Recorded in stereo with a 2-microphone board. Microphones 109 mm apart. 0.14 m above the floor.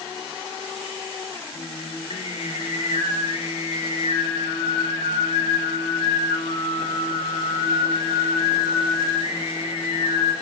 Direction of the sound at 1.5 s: 60° left (ahead or behind).